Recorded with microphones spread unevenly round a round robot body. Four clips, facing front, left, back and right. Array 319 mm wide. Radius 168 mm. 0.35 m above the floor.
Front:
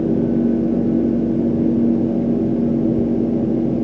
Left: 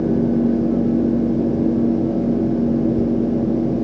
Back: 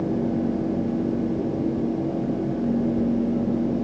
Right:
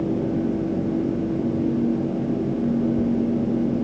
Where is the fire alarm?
I don't hear a fire alarm.